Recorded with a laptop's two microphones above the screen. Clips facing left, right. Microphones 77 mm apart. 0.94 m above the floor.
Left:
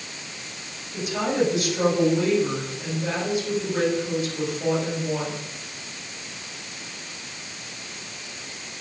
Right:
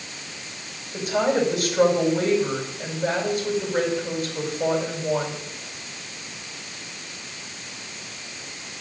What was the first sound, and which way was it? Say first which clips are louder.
A woman speaking: right 2 dB; 45° right (ahead or behind).